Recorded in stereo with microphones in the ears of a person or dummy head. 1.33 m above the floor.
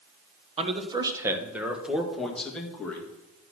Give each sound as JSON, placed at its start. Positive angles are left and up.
{"t": 0.6, "sound": "a man speaking", "side_deg": -35, "distance_m": 0.8}